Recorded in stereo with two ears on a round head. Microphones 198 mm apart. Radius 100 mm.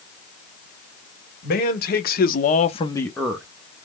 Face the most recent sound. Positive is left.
turn(degrees=-10)  # may be behind; listen again after turning